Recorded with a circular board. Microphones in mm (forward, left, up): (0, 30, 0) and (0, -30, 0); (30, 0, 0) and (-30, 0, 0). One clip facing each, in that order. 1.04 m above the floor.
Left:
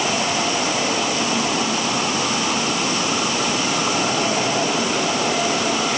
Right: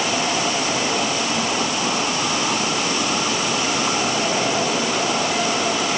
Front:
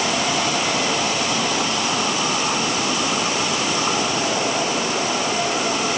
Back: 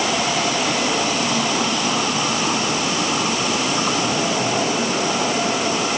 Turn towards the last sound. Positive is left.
No sound to turn to.